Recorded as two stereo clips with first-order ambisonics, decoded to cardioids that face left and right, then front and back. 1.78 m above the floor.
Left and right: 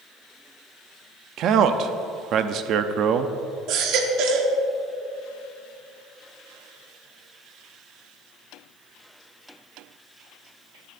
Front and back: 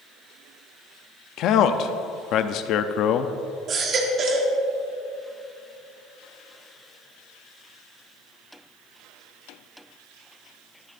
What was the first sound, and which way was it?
A man speaking, 40° right.